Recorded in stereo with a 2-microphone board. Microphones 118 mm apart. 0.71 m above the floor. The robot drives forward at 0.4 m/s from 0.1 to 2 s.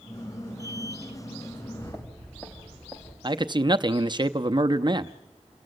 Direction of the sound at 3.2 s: 35° right (ahead or behind).